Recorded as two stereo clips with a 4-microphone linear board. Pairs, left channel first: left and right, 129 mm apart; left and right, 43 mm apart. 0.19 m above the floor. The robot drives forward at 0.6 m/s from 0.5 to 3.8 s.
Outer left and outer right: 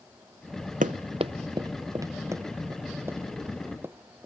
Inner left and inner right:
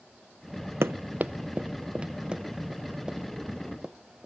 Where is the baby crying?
No baby crying in this recording.